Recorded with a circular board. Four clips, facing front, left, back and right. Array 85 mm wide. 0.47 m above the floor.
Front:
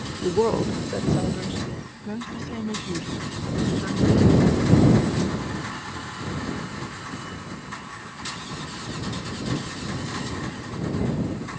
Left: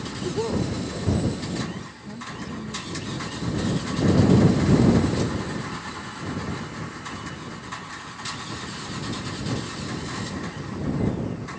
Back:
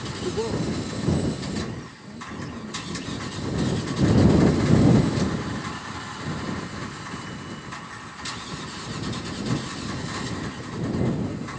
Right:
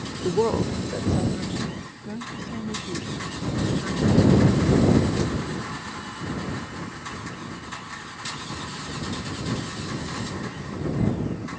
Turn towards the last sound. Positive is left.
turn(degrees=-20)